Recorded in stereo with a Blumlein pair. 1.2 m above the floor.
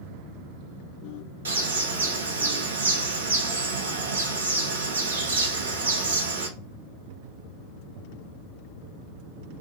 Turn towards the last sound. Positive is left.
turn(degrees=-70)